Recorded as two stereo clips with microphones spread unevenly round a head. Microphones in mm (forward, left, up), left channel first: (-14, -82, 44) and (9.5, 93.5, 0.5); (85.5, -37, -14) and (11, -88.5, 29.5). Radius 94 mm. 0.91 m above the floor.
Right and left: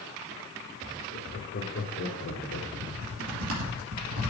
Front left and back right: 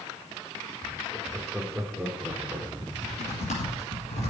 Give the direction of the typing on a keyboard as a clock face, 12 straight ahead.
10 o'clock.